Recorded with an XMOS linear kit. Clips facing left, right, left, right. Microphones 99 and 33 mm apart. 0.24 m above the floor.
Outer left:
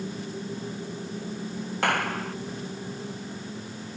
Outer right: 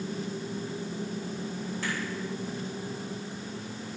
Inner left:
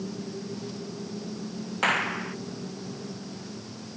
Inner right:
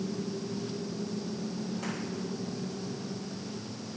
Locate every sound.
1.8 s a clap: 65° left (ahead or behind)